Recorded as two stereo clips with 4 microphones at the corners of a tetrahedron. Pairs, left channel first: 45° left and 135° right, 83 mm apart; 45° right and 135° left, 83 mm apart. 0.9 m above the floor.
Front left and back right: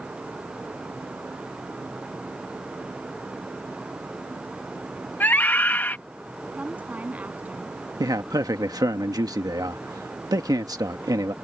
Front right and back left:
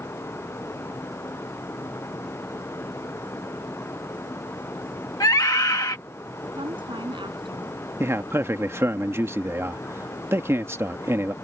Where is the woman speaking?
150° left.